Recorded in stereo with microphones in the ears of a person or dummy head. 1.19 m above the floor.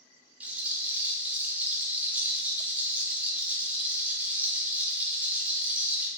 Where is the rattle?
5° right (ahead or behind), 0.8 m.